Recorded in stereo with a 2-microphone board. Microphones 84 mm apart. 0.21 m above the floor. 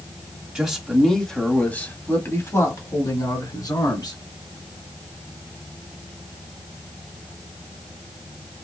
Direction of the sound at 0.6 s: 10° right (ahead or behind).